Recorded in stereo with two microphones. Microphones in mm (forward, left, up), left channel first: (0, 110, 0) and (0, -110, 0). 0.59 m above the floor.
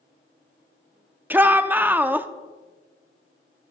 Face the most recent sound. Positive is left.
turn(degrees=-10)  # may be behind; listen again after turning